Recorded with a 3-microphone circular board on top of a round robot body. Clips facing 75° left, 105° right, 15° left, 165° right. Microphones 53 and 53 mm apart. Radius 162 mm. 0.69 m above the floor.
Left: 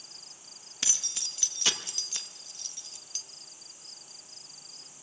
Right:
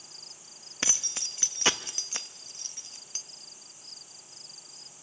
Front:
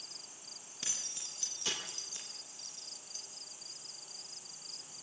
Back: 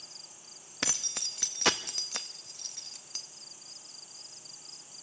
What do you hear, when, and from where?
0.8 s keys jangling: 155° right, 0.9 m